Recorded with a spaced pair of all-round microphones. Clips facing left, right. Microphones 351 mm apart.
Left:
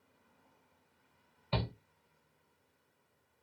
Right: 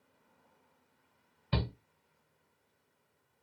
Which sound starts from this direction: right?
A shout, at 1.5 s.